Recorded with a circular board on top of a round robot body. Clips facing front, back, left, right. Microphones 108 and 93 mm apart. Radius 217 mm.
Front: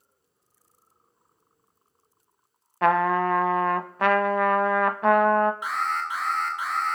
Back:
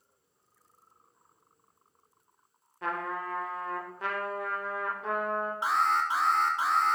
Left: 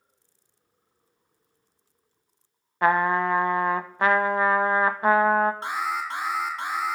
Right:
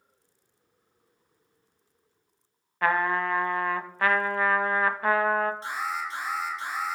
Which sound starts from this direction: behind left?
An alarm, at 5.6 s.